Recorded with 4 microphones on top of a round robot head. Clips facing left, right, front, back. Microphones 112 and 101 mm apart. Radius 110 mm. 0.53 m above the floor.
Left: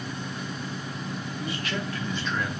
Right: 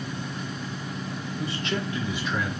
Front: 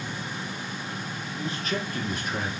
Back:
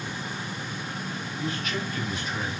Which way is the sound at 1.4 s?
50° right.